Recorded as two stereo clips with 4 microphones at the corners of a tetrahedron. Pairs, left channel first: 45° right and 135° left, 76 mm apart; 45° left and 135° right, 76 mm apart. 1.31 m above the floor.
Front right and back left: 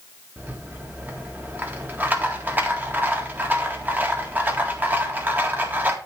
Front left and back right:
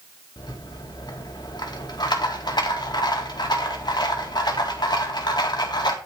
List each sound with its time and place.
0.4 s a rattle: 70° left, 2 m